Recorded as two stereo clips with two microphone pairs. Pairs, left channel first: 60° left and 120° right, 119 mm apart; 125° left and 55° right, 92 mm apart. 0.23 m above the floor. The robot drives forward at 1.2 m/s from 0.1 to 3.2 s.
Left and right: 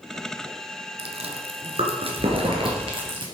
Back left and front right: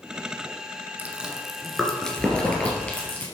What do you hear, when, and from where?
1.0 s chewing: 125° right, 1.4 m; by 3.2 s 165° right, 3.5 m